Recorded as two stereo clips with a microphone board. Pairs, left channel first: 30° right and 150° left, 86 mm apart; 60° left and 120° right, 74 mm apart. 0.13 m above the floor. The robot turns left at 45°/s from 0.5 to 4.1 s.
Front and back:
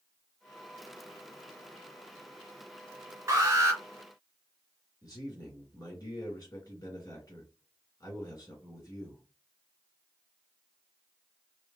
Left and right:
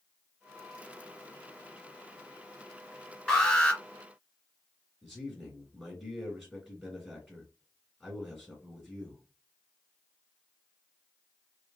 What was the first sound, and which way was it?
An alarm, 135° left.